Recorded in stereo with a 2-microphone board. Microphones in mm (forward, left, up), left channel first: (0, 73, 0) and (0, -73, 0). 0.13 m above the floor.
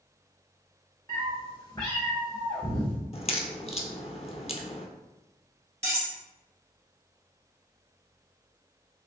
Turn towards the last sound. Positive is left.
turn(degrees=-20)  # may be behind; listen again after turning